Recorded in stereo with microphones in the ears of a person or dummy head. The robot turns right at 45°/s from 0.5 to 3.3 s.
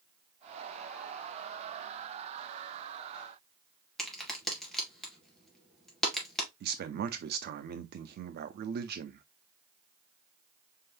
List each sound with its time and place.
4.0 s a crack: 5° right (ahead or behind), 1.8 m
6.6 s a man speaking: 45° right (ahead or behind), 0.6 m